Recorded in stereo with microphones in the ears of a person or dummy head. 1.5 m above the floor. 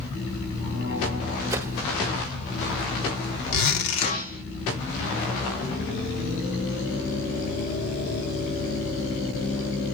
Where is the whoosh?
10° right (ahead or behind), 1.6 m.